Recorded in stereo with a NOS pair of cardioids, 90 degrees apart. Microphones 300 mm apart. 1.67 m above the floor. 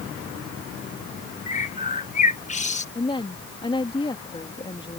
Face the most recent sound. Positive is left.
turn(degrees=15)